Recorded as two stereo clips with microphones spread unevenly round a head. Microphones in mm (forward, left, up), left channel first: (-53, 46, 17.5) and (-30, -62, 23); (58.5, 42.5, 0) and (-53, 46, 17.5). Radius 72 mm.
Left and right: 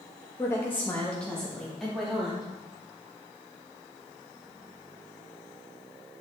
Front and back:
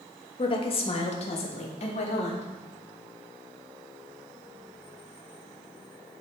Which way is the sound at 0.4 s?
35° left.